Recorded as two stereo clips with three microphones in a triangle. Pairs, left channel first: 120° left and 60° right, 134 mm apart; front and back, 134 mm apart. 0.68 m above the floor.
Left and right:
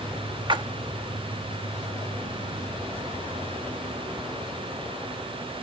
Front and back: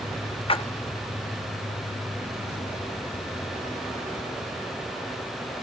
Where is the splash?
25° right, 0.7 m.